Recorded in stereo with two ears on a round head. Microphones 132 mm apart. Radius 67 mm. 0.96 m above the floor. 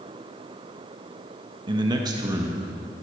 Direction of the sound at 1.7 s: 35° right (ahead or behind).